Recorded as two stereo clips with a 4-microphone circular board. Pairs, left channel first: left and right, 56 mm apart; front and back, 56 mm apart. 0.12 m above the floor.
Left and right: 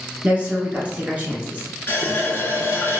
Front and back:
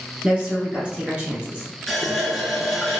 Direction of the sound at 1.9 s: 85° left.